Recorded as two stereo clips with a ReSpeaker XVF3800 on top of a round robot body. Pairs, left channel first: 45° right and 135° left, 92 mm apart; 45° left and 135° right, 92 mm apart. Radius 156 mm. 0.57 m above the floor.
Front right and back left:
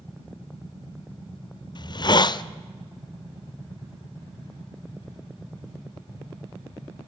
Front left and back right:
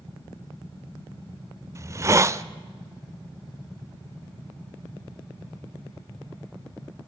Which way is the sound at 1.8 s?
80° right.